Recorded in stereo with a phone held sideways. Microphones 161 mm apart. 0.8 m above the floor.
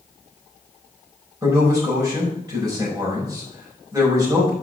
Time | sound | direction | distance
1.4 | a man speaking | 20° right (ahead or behind) | 4.5 m